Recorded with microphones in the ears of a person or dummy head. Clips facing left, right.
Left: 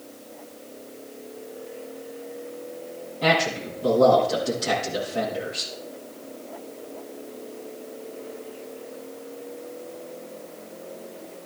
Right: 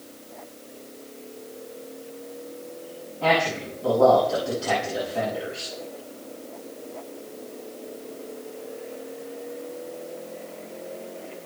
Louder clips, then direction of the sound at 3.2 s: Even; 20° left (ahead or behind).